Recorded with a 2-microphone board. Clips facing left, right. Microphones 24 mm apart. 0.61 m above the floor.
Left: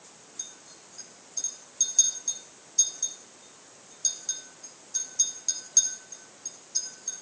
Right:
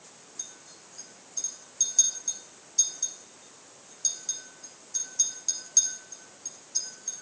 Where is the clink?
5° left (ahead or behind), 3.5 m.